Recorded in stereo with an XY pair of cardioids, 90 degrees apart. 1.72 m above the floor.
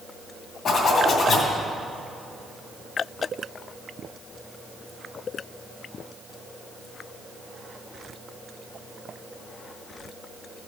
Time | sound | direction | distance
0.7 | a zipper | 65° left | 2.5 m